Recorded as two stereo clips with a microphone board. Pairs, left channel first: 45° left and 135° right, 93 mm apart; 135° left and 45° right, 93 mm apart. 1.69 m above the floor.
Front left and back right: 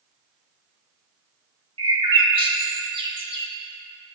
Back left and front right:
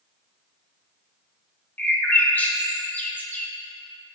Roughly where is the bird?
Behind right.